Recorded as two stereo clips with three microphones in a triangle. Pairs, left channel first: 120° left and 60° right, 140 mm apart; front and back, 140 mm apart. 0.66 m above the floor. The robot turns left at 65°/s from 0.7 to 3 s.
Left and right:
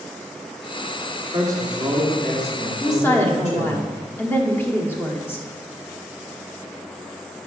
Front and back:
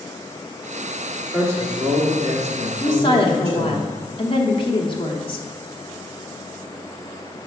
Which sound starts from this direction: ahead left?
A woman speaking, at 2.8 s.